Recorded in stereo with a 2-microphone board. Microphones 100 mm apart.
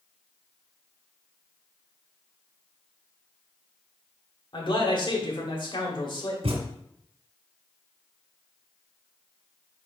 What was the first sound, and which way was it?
A man speaking, 55° left (ahead or behind).